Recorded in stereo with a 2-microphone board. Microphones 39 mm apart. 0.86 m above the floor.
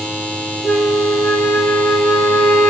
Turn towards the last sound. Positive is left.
turn(degrees=60)  # may be behind; listen again after turning